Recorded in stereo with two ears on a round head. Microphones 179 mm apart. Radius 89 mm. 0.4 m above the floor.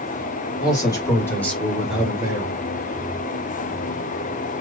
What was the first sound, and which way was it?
A man speaking, 20° left (ahead or behind).